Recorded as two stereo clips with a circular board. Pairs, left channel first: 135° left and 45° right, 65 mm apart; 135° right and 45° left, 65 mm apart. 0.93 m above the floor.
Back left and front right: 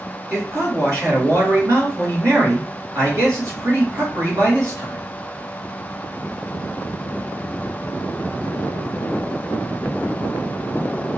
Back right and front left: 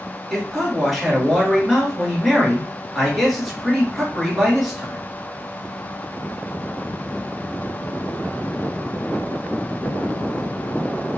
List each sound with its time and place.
0.3 s a man speaking: 45° right, 1.9 m